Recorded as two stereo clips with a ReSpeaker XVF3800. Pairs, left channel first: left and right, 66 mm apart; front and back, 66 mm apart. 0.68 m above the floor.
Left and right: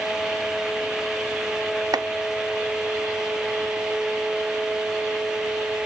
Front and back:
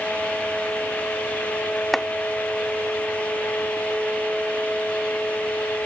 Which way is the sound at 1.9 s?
90° right.